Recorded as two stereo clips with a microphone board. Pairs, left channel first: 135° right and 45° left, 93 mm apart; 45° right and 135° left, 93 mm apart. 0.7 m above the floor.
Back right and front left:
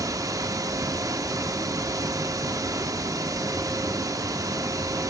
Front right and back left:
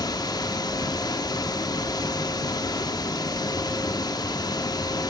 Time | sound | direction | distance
0.0 | running water | 5° right | 1.0 m